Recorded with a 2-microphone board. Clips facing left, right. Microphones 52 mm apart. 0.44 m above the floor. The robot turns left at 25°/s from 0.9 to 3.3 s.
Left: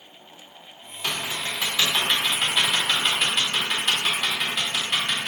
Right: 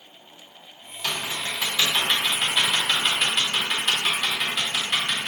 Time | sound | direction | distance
1.0 | typing on a keyboard | 20° left (ahead or behind) | 0.8 m